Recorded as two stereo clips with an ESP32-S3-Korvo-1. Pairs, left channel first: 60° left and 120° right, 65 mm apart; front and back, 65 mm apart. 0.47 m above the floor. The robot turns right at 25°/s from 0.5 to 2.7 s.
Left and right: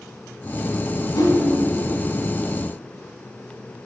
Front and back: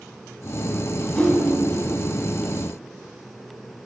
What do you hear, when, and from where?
1.1 s a whoosh: 75° left, 1.8 m; by 1.4 s 80° left, 1.8 m